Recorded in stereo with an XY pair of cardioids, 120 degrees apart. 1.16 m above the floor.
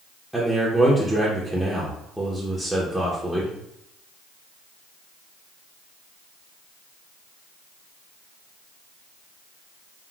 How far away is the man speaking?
About 0.6 m.